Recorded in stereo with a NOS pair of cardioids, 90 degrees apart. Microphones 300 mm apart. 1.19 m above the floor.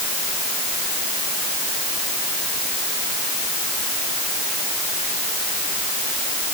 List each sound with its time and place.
Only background noise.